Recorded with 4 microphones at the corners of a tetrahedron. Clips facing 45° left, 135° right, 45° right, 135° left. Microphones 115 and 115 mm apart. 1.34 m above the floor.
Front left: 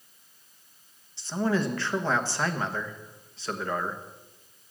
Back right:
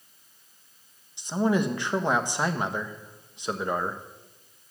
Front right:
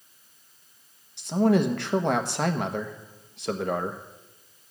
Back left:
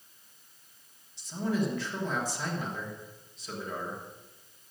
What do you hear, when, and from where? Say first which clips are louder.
1.2 s a man speaking: back right 2 dB, front right 9 dB; 60° right, 1.2 m